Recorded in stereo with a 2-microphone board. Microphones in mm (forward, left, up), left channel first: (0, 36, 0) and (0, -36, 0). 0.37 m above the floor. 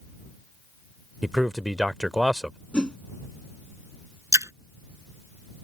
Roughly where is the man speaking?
Centre.